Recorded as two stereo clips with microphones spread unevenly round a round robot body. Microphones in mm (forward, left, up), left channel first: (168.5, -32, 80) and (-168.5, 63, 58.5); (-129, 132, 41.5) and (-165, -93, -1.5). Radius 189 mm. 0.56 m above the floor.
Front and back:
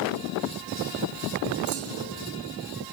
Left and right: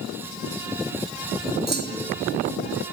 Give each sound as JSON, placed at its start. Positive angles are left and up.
{"t": 1.7, "sound": "a clunk", "azimuth_deg": -145, "distance_m": 4.0}